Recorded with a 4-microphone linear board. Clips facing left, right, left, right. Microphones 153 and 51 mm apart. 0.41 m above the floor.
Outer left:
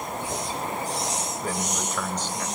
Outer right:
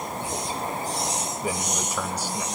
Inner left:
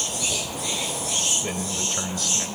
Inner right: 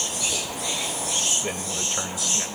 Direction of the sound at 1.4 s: 10° right (ahead or behind).